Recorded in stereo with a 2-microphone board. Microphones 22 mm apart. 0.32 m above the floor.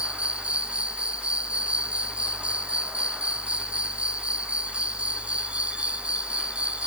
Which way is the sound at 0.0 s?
60° right (ahead or behind).